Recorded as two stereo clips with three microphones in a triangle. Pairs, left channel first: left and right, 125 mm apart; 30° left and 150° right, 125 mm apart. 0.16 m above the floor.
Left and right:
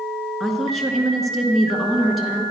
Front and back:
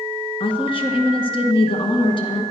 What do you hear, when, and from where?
0.4 s a woman speaking: straight ahead, 1.9 m